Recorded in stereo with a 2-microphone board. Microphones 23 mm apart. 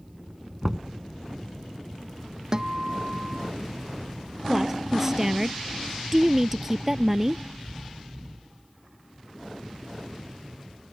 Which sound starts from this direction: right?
A guitar, at 2.5 s.